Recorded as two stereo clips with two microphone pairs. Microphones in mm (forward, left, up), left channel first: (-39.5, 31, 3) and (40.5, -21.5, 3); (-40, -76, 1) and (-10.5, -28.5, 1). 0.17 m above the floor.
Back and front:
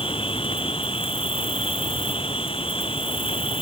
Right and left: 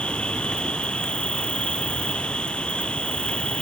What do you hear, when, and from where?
0.0 s an insect: 165° left